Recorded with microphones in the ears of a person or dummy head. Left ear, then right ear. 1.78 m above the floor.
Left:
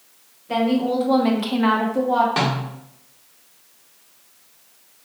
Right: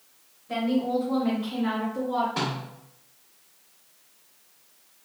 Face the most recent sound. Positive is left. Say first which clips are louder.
# left 8 dB
turn(degrees=35)  # may be behind; listen again after turning